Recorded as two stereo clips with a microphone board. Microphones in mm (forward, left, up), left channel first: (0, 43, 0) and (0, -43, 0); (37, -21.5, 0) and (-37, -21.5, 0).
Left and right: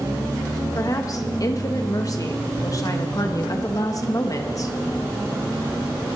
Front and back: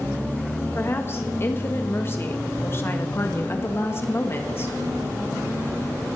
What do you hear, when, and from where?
0.8 s a woman speaking: 50° left, 1.5 m